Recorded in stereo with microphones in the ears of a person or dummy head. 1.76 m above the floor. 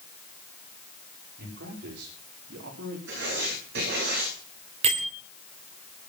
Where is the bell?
35° right (ahead or behind), 1.7 m.